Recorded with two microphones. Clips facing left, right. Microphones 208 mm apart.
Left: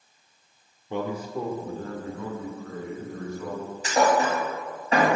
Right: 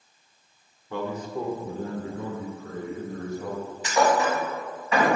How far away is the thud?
About 1.6 m.